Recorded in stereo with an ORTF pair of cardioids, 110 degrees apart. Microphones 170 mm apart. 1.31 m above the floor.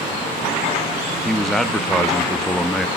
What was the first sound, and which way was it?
A man speaking, straight ahead.